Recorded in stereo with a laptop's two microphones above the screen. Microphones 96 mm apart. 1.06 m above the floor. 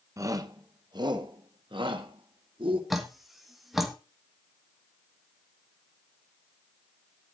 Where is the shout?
35° right (ahead or behind), 1.0 m; by 2.8 s 65° right (ahead or behind), 2.5 m.